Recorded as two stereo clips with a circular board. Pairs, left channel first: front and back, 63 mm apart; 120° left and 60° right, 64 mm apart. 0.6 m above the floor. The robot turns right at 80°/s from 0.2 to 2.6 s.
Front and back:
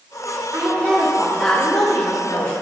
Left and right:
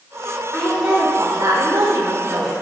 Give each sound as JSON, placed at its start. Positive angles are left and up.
{"t": 0.5, "sound": "a woman speaking", "azimuth_deg": -155, "distance_m": 1.8}